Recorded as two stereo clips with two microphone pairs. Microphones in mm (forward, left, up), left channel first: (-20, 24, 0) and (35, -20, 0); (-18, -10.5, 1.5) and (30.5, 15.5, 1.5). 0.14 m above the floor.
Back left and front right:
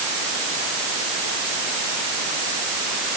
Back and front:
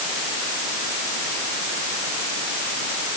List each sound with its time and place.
Only background noise.